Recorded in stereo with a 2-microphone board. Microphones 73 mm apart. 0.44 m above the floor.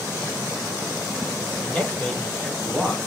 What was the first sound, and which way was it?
A man speaking, 20° left (ahead or behind).